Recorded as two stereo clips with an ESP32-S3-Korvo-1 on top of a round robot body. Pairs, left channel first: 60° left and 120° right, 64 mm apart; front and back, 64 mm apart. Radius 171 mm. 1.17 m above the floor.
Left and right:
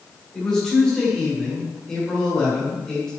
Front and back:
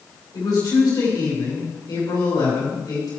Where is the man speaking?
20° right, 4.5 m.